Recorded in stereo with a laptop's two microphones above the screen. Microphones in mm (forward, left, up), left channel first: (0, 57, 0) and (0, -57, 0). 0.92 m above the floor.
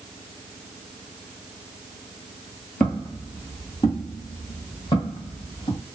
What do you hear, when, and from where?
2.8 s footsteps: 5° left (ahead or behind), 1.2 m; by 5.8 s 50° left (ahead or behind), 2.5 m